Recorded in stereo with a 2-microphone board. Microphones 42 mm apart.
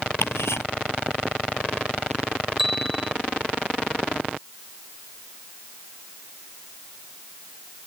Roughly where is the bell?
Centre.